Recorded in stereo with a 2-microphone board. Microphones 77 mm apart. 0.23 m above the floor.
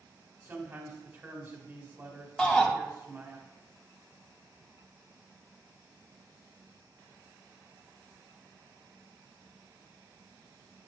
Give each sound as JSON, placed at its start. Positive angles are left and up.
{"t": 0.4, "sound": "a man speaking", "side_deg": -30, "distance_m": 1.7}
{"t": 2.4, "sound": "a shout", "side_deg": 10, "distance_m": 1.0}